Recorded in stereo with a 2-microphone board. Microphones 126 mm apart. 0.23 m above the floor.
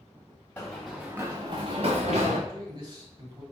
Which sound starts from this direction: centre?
Running footsteps, at 0.6 s.